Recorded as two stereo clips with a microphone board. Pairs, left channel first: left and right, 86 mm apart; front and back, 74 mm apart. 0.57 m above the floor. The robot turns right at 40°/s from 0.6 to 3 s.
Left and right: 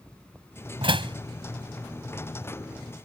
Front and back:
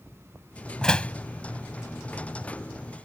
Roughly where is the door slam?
Right.